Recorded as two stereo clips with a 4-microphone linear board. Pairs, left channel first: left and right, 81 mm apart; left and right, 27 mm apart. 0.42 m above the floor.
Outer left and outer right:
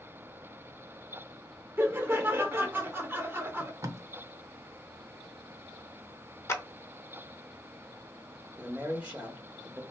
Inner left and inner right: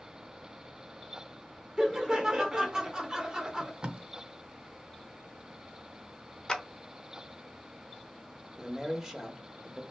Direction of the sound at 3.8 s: 40° right (ahead or behind).